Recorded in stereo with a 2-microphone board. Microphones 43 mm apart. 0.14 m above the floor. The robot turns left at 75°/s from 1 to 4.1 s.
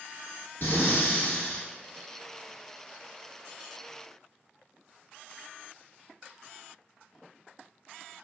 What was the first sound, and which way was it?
Breathing, 75° left.